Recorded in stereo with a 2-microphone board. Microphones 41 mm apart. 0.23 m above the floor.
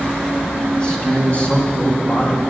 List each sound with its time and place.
0.8 s a man speaking: 15° left (ahead or behind), 1.9 m; by 2.4 s 35° left (ahead or behind), 2 m